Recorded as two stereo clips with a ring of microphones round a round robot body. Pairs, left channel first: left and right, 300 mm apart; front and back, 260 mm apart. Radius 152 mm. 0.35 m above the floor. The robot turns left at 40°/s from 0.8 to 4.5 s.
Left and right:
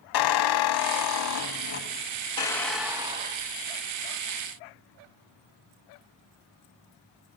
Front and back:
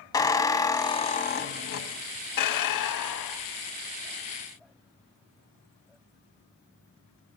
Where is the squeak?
75° left, 0.9 m; by 3.7 s 40° right, 0.9 m.